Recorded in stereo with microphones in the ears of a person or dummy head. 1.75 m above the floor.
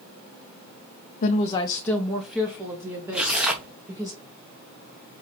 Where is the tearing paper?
Centre (ahead or behind), 1.3 m.